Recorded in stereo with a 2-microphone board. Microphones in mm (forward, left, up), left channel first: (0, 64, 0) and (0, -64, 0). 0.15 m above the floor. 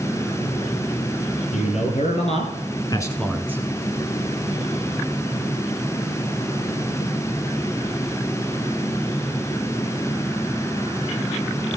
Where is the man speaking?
70° left (ahead or behind), 3 m; by 3.6 s 20° right (ahead or behind), 1.2 m.